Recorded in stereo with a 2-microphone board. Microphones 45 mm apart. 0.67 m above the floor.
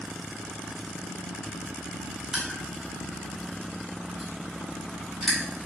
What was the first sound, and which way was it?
Crushing, centre (ahead or behind).